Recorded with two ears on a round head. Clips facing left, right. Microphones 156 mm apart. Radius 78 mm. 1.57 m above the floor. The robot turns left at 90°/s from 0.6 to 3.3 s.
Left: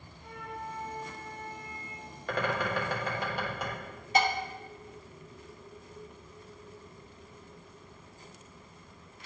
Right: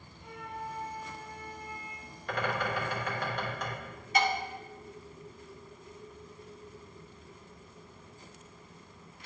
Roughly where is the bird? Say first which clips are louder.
Left 1 dB; left.